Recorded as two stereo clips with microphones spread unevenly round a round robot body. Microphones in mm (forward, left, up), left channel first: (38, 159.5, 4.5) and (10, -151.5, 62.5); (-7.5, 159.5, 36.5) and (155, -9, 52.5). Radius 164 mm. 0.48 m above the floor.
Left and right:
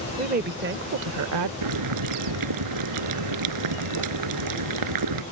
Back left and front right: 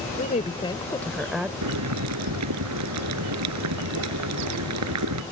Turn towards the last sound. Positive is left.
turn(degrees=-70)